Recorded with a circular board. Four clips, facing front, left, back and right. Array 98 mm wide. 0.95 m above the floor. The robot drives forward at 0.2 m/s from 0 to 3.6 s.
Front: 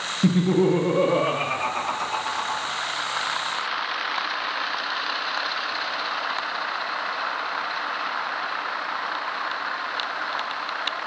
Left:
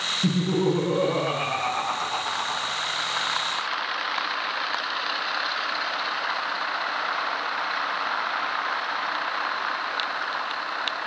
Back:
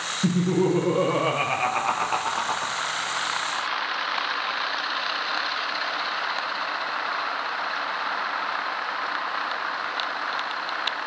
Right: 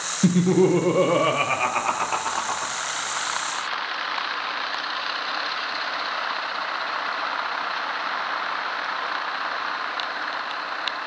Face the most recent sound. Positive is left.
turn(degrees=-155)